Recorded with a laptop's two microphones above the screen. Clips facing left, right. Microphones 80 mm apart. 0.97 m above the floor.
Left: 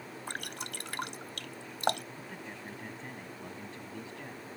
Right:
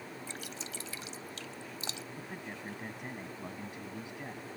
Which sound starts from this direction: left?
Dripping, at 0.3 s.